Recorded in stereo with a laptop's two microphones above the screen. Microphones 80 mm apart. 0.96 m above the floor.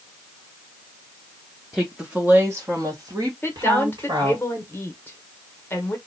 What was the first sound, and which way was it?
A woman speaking, centre (ahead or behind).